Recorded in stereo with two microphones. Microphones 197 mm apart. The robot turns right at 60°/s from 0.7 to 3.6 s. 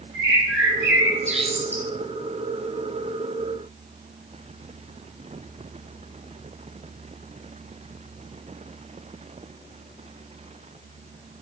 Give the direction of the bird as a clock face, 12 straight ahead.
2 o'clock.